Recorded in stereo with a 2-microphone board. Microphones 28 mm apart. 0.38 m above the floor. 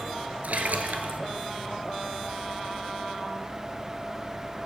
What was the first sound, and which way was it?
A splash, 80° right.